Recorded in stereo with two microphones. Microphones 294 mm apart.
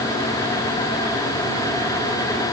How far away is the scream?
No scream in this recording.